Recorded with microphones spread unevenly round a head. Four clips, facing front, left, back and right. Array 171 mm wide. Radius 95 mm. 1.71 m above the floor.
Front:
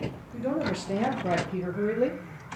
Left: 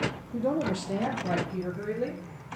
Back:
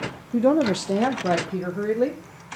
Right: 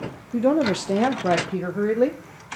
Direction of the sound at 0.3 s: 145° right.